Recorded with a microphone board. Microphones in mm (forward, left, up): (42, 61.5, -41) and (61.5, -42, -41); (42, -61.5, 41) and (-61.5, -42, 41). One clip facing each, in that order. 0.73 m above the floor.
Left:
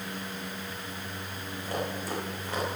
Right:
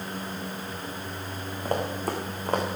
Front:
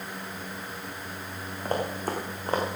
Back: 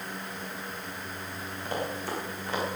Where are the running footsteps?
55° right, 2.5 m.